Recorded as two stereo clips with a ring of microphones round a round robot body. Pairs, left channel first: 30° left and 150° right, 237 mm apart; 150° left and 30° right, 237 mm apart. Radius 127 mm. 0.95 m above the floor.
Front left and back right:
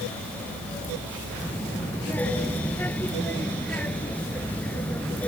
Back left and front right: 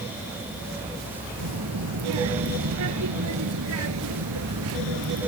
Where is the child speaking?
55° right.